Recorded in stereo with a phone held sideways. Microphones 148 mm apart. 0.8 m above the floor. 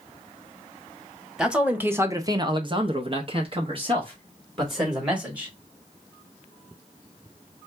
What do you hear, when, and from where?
1.4 s a man speaking: 5° right (ahead or behind), 1.0 m; by 5.5 s 30° right (ahead or behind), 2.5 m